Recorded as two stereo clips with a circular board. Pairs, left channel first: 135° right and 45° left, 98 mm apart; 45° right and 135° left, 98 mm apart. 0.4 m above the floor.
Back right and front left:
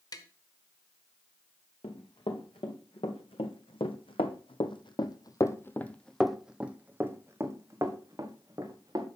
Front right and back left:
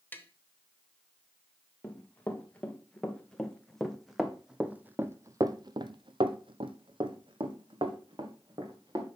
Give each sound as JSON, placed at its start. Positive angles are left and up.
{"t": 0.1, "sound": "tapping", "azimuth_deg": -105, "distance_m": 0.9}
{"t": 1.8, "sound": "running footsteps", "azimuth_deg": -120, "distance_m": 2.0}